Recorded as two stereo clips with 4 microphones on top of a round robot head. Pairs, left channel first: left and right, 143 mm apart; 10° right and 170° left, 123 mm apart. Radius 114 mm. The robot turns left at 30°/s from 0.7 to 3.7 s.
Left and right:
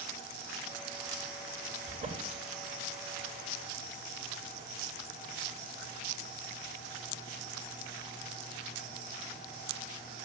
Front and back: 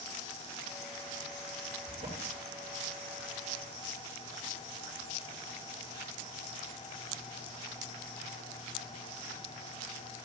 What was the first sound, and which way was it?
A drawer, 130° right.